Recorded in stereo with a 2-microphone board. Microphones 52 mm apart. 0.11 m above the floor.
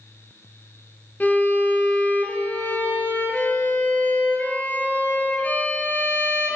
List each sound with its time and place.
1.2 s a violin: 35° left (ahead or behind), 1.8 m